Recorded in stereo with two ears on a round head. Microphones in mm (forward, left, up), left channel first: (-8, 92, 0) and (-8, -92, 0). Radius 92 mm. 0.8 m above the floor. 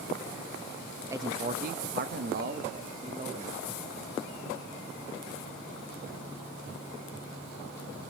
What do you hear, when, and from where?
1.1 s a man speaking: 15° right (ahead or behind), 0.6 m; by 3.6 s 35° right (ahead or behind), 1.6 m